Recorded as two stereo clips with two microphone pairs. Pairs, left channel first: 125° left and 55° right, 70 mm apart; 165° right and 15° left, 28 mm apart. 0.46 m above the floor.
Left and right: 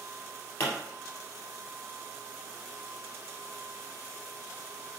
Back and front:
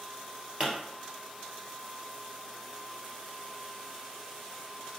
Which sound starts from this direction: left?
A pop, at 0.6 s.